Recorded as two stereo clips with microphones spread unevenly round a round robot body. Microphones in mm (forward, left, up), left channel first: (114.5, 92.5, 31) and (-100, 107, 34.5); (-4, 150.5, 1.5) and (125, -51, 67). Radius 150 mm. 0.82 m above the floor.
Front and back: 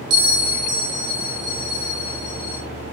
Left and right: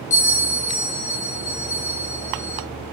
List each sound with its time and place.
0.1 s a bell: 175° right, 3.5 m